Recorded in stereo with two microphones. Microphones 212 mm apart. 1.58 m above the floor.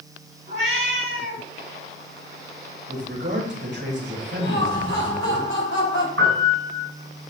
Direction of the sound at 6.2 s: 80° right.